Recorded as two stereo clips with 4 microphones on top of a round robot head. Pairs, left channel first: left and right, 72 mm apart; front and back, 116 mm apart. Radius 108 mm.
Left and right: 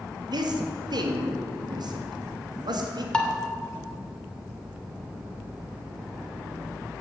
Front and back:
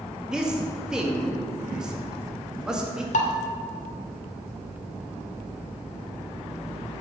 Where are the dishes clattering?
10° left, 2.5 m.